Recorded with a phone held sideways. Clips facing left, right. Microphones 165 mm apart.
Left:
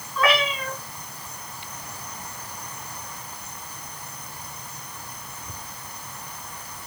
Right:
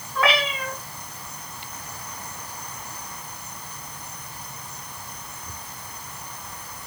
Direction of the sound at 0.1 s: 70° right (ahead or behind).